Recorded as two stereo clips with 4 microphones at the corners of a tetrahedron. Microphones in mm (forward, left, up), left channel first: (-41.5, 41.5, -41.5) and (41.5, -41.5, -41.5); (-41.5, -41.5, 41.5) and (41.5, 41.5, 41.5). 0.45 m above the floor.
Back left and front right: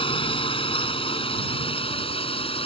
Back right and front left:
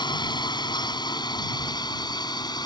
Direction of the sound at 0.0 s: 175° left.